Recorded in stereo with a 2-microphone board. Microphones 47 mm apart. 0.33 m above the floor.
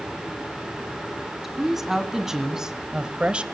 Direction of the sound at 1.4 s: 5° right (ahead or behind).